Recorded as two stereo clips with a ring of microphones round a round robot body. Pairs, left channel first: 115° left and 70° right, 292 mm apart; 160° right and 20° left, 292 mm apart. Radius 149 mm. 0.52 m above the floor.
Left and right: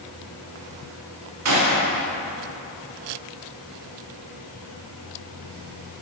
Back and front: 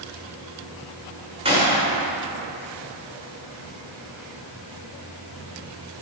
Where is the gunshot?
50° right, 1.9 m.